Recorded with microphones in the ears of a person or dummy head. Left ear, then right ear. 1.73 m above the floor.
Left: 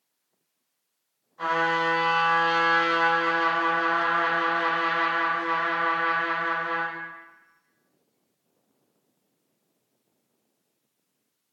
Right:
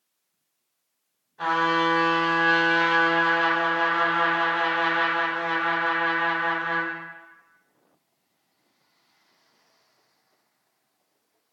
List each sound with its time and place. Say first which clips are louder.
1.4 s a trumpet: right 2 dB; 10° left (ahead or behind), 1.4 m